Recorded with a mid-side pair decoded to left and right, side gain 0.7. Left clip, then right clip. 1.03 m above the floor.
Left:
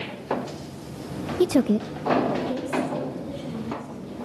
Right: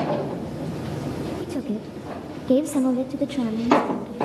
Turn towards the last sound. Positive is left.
turn(degrees=-75)